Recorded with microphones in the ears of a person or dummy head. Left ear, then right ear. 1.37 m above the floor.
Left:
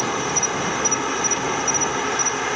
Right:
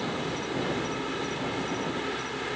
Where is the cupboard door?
I don't hear a cupboard door.